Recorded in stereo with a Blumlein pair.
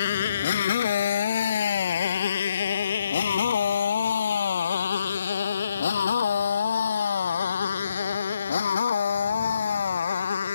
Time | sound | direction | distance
0.0 | a motorcycle | 60° left | ?